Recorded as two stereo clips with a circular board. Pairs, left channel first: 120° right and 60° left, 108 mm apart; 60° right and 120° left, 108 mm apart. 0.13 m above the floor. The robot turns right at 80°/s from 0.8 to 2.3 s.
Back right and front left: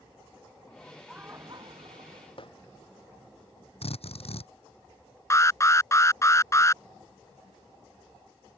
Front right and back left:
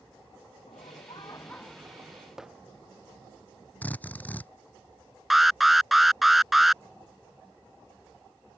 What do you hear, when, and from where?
0.7 s laughter: 45° right; by 2.3 s 70° left
2.4 s hammering: 155° right
3.8 s a drill: 135° right
5.3 s an alarm: 155° right